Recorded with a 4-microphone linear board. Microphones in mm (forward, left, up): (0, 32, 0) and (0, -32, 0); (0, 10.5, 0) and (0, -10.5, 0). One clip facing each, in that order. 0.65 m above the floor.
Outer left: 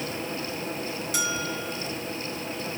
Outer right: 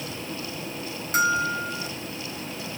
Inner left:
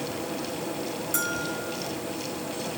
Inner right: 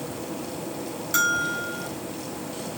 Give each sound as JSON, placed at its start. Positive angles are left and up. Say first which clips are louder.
{"t": 1.1, "sound": "a bell", "louder": "outer right 10 dB, inner right 9 dB", "side_deg": -40}